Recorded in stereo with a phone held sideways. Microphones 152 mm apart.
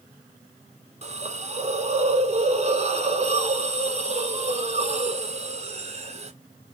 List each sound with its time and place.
1.0 s a hiss: 45° right (ahead or behind), 0.5 m